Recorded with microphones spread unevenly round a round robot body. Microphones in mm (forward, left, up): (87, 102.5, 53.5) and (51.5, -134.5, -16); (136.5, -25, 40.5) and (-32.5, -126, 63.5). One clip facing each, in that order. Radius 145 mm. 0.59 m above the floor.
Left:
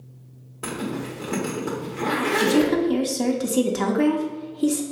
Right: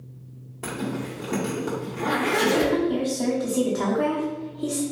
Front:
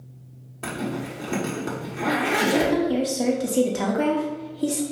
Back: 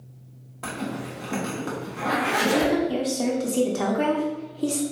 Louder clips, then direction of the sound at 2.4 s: Left 3 dB, even; 80° left.